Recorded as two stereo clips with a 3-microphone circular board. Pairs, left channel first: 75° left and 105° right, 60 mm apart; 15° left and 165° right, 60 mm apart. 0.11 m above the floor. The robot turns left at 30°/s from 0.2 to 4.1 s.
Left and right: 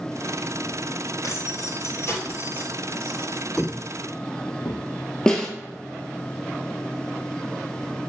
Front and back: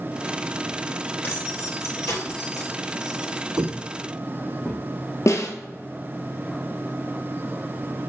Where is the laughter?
I don't hear laughter.